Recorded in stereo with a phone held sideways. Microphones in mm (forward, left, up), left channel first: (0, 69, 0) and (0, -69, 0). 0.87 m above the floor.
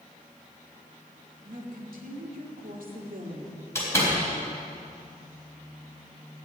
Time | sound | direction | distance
1.4 | a woman speaking | 70° right (ahead or behind) | 2.5 m
3.8 | a door slam | 20° left (ahead or behind) | 4 m